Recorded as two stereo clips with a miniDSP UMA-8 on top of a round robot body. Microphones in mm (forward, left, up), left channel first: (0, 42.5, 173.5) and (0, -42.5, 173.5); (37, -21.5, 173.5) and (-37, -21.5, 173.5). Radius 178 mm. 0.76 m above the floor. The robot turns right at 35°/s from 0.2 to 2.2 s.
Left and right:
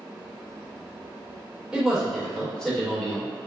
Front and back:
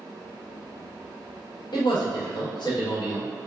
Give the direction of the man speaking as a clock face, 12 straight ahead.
12 o'clock.